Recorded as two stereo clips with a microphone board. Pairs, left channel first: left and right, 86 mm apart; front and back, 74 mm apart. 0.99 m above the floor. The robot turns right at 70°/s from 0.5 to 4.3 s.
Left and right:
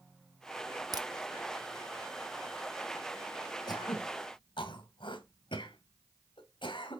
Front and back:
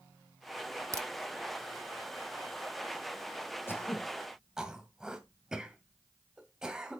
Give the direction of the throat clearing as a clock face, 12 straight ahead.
10 o'clock.